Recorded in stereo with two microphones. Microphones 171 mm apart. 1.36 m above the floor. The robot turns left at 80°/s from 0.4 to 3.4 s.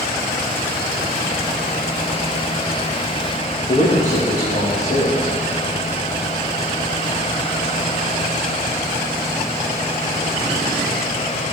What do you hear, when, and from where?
3.7 s a man speaking: 50° left (ahead or behind), 1.5 m